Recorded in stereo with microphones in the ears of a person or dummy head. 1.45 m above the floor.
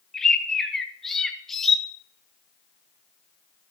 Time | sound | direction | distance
0.1 | a bird | centre (ahead or behind) | 1.1 m